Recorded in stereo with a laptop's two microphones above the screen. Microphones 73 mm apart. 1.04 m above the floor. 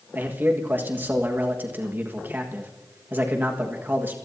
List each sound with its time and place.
0.1 s a man speaking: 25° right (ahead or behind), 1.5 m